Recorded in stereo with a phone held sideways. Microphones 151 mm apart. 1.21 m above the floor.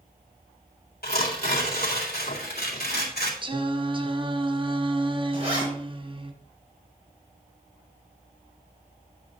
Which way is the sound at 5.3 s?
40° right (ahead or behind).